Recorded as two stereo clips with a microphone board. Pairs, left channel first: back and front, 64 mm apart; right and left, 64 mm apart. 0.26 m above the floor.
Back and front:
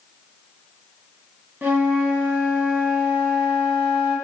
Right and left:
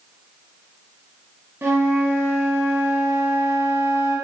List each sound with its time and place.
1.6 s a flute: 50° left, 0.7 m